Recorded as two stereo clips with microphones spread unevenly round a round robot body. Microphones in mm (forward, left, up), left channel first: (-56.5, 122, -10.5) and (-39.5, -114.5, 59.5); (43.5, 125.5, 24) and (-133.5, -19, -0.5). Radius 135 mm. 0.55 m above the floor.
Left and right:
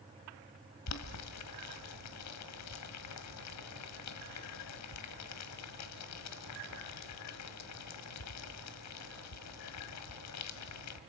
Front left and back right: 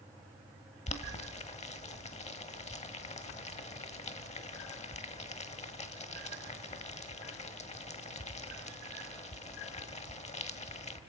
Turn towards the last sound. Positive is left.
turn(degrees=100)